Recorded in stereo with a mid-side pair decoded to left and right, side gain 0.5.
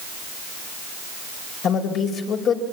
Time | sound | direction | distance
1.6 | a woman speaking | 65° left | 5.5 m